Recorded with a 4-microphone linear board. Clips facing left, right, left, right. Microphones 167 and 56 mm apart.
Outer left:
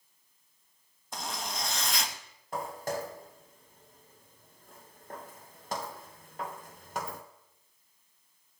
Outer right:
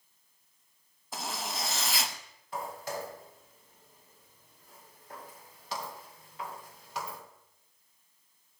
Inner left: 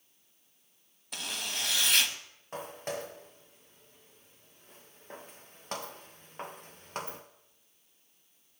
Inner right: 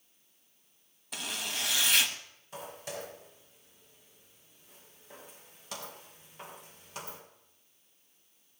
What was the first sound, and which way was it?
A zipper, 5° right (ahead or behind).